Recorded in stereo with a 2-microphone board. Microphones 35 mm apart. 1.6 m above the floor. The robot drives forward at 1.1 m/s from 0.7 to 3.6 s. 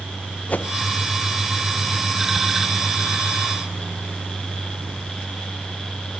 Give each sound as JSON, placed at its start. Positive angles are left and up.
{"t": 0.5, "sound": "a whoosh", "side_deg": 40, "distance_m": 0.7}